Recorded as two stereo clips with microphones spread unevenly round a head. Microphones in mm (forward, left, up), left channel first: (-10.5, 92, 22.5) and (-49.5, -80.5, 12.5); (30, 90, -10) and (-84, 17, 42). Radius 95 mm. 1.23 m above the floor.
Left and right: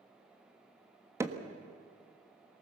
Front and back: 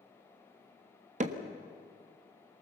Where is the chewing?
I don't hear chewing.